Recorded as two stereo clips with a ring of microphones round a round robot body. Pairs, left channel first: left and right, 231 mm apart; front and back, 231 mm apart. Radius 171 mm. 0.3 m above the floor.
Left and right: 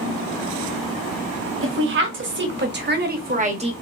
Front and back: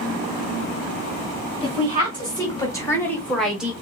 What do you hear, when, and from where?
1.6 s a woman speaking: 70° right, 2 m; by 3.7 s 105° right, 1.0 m